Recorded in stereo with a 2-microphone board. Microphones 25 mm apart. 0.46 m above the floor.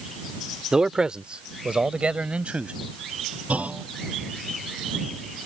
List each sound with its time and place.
0.7 s a man speaking: 25° right (ahead or behind); by 2.8 s 60° right (ahead or behind)
3.5 s a clunk: 80° right